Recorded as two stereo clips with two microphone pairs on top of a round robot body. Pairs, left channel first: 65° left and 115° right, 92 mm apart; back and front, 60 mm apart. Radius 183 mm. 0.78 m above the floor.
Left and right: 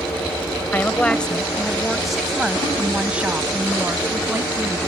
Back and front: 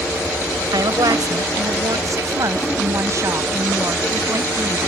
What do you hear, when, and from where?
0.7 s a woman speaking: 10° right; by 4.8 s 50° right